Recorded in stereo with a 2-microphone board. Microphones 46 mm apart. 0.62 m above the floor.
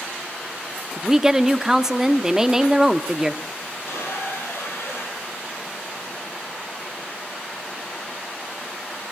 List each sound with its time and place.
1.0 s a woman speaking: 10° right (ahead or behind), 0.9 m
3.7 s a squeak: 75° left (ahead or behind), 7.5 m